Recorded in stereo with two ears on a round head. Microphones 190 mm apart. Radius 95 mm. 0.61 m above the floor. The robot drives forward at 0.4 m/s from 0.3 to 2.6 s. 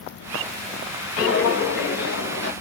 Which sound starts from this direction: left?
Footsteps, at 1.2 s.